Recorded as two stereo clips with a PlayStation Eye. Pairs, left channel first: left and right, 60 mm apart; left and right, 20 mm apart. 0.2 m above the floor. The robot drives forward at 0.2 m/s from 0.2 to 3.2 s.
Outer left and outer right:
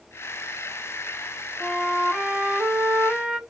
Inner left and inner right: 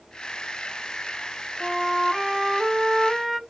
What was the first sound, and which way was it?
A flute, 15° right (ahead or behind).